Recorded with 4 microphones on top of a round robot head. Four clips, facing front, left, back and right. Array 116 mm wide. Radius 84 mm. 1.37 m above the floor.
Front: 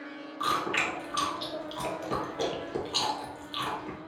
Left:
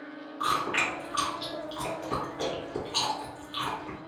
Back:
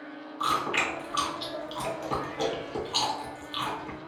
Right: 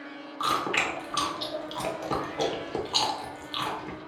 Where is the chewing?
80° right, 0.8 m.